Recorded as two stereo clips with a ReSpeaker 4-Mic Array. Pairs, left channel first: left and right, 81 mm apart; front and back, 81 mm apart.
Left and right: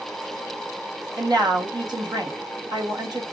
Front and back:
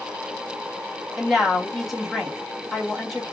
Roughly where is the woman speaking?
Right.